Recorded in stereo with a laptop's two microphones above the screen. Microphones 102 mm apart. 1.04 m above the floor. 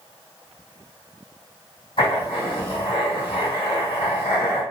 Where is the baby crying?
I don't hear a baby crying.